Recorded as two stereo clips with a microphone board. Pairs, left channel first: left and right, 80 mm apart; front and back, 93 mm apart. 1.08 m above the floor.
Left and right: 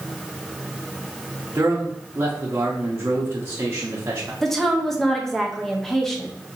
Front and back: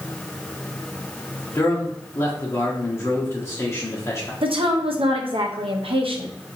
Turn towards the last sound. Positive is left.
turn(degrees=175)